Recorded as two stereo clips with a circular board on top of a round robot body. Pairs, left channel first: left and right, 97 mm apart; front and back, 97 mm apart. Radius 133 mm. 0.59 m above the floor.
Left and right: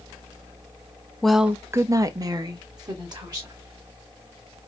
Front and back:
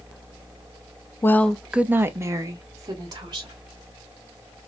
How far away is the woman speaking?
About 0.6 m.